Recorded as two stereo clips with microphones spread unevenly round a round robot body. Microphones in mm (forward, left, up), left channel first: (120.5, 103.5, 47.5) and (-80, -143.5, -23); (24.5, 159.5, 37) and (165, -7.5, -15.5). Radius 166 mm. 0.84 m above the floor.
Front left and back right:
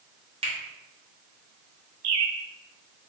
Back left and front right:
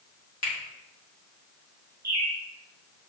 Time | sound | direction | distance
0.4 | a finger snap | 160° left | 1.2 m
2.0 | a bird | 140° right | 0.7 m